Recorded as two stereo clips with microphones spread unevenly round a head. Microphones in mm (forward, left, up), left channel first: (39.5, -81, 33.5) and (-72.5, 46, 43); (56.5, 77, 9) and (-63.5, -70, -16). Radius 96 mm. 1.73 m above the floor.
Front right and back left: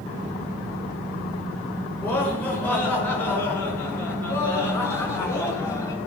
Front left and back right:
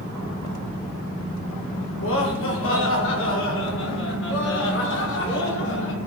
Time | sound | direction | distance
2.0 | laughter | 30° left | 6.5 m